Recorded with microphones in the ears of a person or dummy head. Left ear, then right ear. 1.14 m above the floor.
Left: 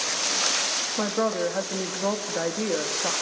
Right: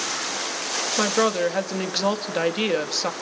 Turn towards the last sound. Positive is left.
turn(degrees=-70)  # may be behind; listen again after turning